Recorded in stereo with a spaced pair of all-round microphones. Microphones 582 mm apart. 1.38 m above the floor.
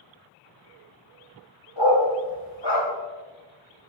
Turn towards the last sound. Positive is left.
turn(degrees=50)  # may be behind; listen again after turning